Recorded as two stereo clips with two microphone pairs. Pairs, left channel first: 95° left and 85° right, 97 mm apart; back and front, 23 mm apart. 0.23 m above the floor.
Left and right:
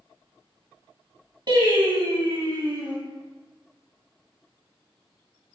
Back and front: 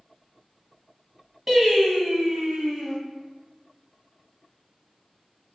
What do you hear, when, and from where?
1.5 s singing: 65° right, 0.9 m